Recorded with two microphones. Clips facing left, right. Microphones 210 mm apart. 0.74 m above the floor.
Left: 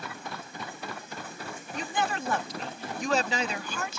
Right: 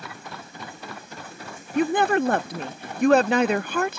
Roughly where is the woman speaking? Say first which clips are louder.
Right 12 dB; right.